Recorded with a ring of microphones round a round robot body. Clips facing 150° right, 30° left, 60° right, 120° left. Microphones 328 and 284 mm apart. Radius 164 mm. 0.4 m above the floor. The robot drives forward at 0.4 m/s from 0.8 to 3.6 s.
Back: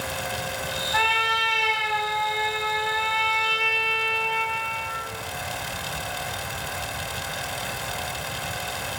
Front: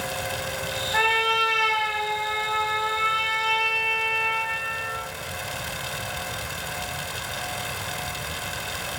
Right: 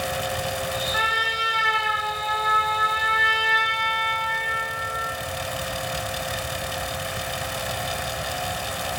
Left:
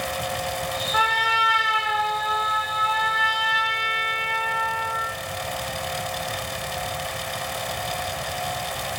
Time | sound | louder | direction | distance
0.9 | a trumpet | front 4 dB, left 1 dB | 155° left | 1.3 m